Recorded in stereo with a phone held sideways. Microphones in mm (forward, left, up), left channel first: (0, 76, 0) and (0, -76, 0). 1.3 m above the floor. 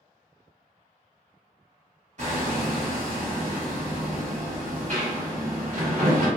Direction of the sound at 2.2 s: 50° right (ahead or behind).